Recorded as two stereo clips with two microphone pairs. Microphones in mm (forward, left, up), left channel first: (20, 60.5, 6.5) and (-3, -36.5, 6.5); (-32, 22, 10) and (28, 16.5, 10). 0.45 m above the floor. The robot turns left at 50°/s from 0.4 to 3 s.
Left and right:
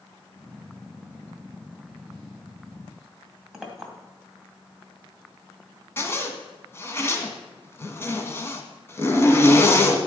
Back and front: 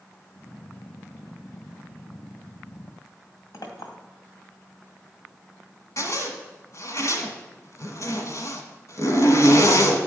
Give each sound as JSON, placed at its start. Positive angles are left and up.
{"t": 3.5, "sound": "a clink", "azimuth_deg": 170, "distance_m": 2.0}
{"t": 6.0, "sound": "a zipper", "azimuth_deg": 140, "distance_m": 1.8}